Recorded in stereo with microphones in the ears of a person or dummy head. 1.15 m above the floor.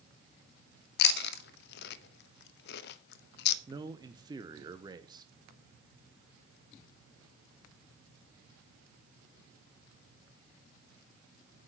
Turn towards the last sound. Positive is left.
turn(degrees=-20)  # may be behind; listen again after turning